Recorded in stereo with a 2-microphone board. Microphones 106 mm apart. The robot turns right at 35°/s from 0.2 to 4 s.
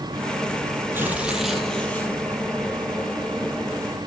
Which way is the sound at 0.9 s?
20° right.